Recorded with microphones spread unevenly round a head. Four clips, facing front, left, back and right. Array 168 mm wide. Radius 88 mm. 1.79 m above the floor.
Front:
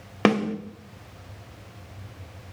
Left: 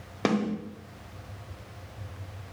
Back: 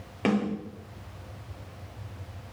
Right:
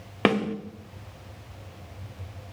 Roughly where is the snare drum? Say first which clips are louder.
Right 3 dB, front 5 dB; ahead right.